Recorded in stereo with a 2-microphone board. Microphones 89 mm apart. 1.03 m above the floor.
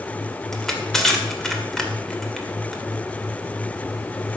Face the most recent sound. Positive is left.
turn(degrees=5)  # may be behind; listen again after turning